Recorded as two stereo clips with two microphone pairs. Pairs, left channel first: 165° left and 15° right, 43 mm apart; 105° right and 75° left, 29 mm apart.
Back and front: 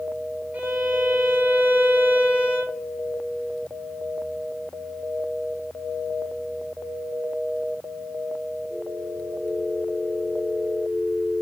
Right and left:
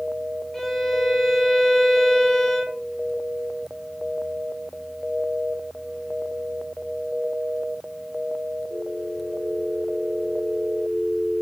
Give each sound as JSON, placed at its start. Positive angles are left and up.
{"t": 0.5, "sound": "a violin", "azimuth_deg": -30, "distance_m": 0.6}